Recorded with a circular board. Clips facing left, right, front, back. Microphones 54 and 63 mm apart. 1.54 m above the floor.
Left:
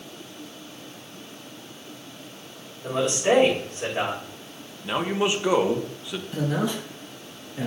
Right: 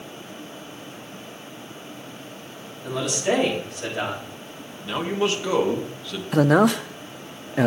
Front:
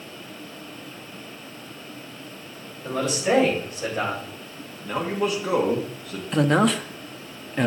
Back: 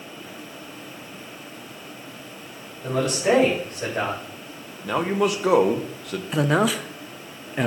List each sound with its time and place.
2.8 s a man speaking: 150° left, 7 m
4.8 s a man speaking: 165° left, 1.7 m
6.3 s a man speaking: 90° right, 0.7 m